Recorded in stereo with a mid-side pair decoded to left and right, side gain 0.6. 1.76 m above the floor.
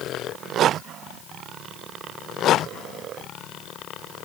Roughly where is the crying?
I don't hear crying.